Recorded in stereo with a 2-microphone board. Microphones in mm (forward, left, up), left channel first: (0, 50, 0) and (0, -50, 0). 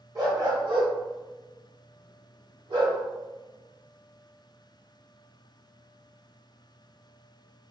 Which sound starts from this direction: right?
A dog barking, at 0.1 s.